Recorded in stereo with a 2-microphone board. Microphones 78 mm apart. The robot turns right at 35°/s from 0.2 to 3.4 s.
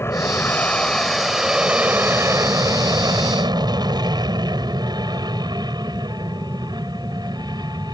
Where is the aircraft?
145° left; by 7.9 s 105° right.